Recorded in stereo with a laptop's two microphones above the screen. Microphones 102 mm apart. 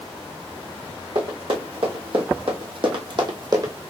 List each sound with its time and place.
1.1 s running footsteps: 55° right (ahead or behind), 2.5 m; by 3.7 s 35° right (ahead or behind), 1.4 m